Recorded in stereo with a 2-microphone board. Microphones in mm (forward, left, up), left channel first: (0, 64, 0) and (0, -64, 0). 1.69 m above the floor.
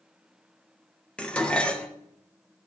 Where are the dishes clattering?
10° left (ahead or behind), 0.9 m.